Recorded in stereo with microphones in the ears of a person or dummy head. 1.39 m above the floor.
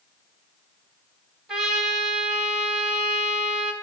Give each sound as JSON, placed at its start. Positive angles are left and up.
{"t": 1.5, "sound": "a trumpet", "side_deg": 0, "distance_m": 1.0}